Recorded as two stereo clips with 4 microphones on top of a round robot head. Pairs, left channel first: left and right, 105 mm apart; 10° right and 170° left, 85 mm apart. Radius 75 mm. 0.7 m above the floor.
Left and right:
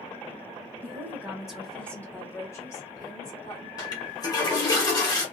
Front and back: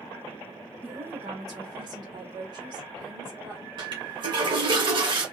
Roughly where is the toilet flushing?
Behind left.